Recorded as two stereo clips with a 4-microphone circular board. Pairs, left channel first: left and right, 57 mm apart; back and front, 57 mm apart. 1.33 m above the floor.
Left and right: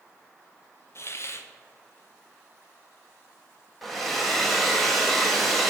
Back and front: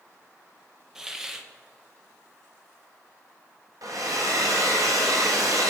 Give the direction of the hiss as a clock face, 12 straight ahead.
9 o'clock.